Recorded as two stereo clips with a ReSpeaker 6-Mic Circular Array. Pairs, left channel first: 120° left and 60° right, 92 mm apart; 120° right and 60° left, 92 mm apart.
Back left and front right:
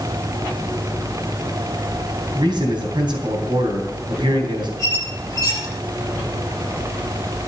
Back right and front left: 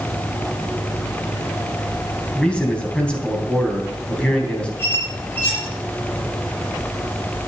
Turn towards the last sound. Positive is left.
turn(degrees=175)